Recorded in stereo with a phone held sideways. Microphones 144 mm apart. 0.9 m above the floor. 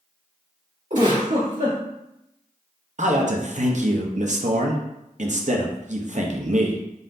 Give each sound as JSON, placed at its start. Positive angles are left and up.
{"t": 0.9, "sound": "a giggle", "side_deg": -60, "distance_m": 2.0}
{"t": 3.0, "sound": "a man speaking", "side_deg": -55, "distance_m": 0.7}